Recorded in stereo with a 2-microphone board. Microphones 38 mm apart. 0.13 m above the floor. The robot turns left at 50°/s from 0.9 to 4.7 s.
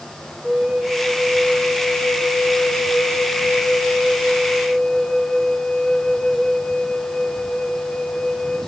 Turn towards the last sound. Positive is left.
turn(degrees=0)